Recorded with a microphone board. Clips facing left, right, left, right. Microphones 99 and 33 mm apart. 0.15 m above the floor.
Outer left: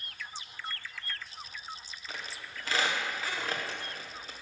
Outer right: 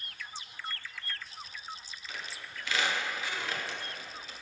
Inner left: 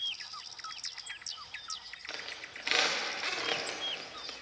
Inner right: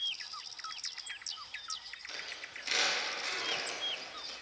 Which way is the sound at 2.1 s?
40° left (ahead or behind).